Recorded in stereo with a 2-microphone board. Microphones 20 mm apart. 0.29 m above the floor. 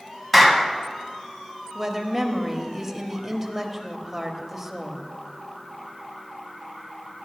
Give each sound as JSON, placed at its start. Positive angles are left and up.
{"t": 0.3, "sound": "a clap", "side_deg": 5, "distance_m": 1.4}
{"t": 1.8, "sound": "a woman speaking", "side_deg": -20, "distance_m": 1.0}